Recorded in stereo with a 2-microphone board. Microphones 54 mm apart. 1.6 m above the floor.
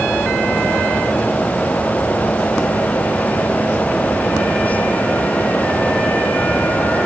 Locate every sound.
Only background noise.